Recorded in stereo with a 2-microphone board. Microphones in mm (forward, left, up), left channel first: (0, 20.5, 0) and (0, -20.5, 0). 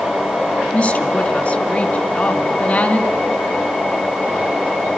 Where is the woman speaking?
30° left (ahead or behind), 2.5 m.